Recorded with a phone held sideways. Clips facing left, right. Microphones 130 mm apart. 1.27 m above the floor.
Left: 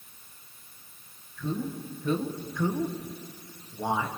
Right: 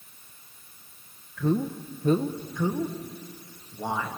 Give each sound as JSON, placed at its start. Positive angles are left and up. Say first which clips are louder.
{"t": 1.4, "sound": "a man speaking", "louder": "right 6 dB", "side_deg": -65, "distance_m": 1.2}